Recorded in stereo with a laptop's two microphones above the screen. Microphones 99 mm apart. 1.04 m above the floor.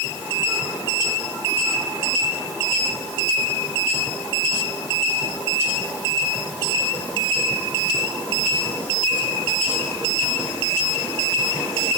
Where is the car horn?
No car horn in this recording.